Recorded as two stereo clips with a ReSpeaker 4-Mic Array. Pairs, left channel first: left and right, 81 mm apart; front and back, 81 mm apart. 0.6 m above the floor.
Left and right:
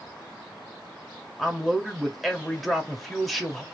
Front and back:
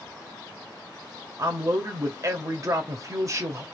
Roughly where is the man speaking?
Behind.